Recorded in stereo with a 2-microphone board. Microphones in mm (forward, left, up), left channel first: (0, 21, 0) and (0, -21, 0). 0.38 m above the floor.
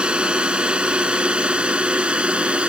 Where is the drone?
25° right (ahead or behind).